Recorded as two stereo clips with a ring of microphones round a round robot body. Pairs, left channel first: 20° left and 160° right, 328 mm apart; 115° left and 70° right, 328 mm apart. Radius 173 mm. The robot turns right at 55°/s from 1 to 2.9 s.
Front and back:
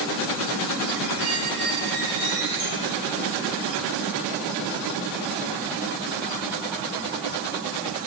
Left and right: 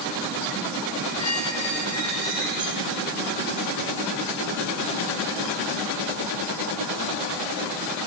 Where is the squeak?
150° left, 2 m; by 3.0 s 115° right, 2 m.